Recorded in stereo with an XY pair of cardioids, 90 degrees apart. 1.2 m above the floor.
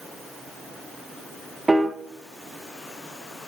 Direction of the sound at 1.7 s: 20° right.